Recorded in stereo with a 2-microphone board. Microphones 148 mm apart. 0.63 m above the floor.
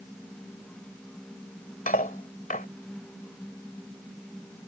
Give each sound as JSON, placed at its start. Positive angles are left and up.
{"t": 1.9, "sound": "cutlery clinking", "side_deg": 65}